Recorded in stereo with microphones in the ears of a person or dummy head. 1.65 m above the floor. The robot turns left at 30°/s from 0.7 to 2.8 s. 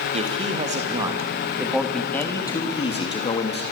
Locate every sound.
0.1 s a man speaking: 150° right, 3 m; by 3.6 s 150° left, 3 m